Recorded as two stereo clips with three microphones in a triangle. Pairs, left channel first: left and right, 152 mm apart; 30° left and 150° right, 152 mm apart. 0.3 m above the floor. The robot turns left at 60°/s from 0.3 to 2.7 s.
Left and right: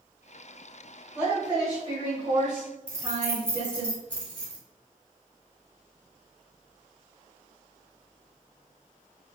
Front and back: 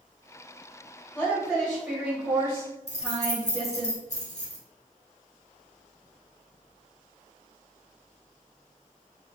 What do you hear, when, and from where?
1.1 s a woman speaking: 30° right, 1.3 m; by 3.9 s 125° right, 1.3 m
2.9 s keys jangling: 10° left, 1.2 m